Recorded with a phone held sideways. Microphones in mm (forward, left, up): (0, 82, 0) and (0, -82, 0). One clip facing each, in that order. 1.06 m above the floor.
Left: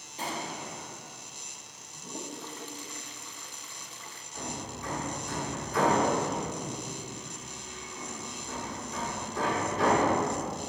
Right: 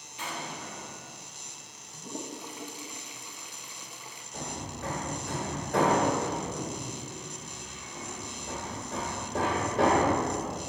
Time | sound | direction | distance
0.2 | an explosion | 35° left (ahead or behind) | 0.9 m
1.9 | a toilet flushing | 15° right (ahead or behind) | 0.6 m
4.3 | hammering | 75° right (ahead or behind) | 3 m